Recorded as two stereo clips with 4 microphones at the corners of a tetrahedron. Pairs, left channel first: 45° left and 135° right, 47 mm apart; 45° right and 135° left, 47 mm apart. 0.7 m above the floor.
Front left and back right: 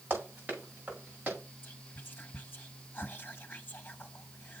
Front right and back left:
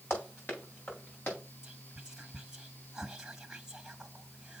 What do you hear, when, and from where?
0.1 s running footsteps: 85° right, 6.5 m; by 1.4 s 80° right, 5.5 m
1.6 s whispering: 60° left, 0.7 m